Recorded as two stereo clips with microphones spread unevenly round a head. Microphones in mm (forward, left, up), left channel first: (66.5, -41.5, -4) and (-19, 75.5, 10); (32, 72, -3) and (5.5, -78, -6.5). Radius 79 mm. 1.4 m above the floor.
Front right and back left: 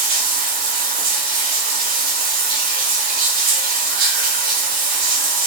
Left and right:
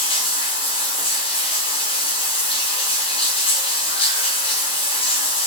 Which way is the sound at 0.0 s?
130° left.